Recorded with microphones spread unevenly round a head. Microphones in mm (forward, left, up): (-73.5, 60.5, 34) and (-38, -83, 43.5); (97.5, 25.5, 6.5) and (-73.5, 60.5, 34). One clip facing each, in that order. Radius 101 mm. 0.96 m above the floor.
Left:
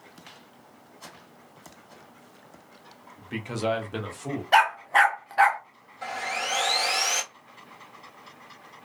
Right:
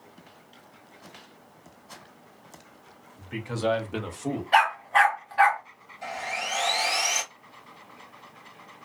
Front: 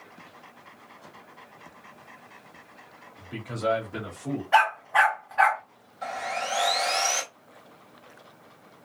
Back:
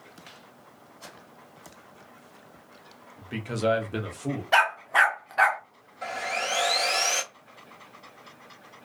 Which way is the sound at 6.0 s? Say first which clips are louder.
Left 1 dB, even; 135° left.